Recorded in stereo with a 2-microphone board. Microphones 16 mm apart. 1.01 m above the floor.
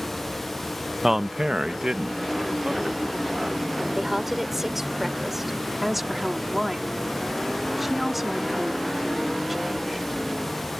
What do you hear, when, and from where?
1.0 s a man speaking: 15° right (ahead or behind); by 3.7 s 55° right (ahead or behind)
4.0 s a woman speaking: 25° right (ahead or behind)
5.8 s a woman speaking: 5° right (ahead or behind)